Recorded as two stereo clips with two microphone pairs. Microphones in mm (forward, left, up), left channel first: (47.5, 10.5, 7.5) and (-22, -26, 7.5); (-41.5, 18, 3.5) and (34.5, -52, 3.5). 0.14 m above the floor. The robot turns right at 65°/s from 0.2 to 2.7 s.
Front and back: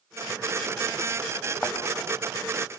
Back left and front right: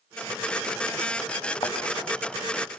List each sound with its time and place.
1.6 s a thud: 95° left, 4.5 m; by 1.8 s 105° left, 4.5 m